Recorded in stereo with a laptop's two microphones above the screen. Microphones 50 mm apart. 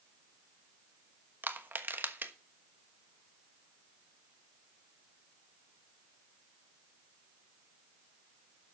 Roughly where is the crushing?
Right.